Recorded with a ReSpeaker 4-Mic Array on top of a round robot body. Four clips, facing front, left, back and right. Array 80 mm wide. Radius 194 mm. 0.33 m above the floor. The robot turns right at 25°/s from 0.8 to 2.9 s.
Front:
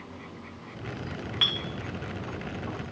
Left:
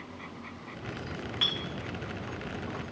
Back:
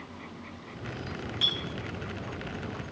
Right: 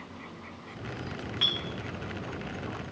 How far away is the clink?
About 1.1 m.